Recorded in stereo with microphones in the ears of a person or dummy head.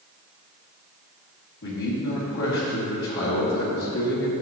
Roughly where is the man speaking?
Left.